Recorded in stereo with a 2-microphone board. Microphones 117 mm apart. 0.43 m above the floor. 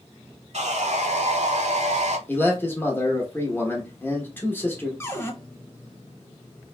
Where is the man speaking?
20° left (ahead or behind), 0.9 m.